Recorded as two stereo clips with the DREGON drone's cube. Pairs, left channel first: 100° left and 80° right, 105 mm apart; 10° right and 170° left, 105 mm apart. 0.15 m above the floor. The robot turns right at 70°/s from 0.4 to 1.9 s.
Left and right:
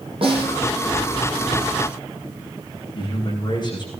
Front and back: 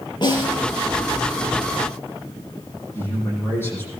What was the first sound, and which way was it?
A snare drum, 50° right.